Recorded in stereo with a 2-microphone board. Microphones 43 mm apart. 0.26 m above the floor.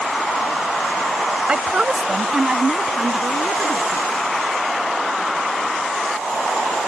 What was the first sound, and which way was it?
A woman speaking, 25° right (ahead or behind).